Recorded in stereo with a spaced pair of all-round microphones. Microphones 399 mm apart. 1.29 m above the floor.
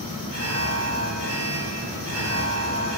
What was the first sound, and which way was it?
An alarm, 40° right (ahead or behind).